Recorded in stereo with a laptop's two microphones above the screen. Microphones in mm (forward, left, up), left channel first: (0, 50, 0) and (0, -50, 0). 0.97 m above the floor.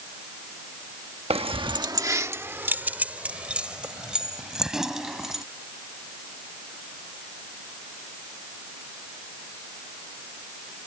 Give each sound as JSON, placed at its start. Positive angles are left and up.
{"t": 1.3, "sound": "keys jangling", "side_deg": -80}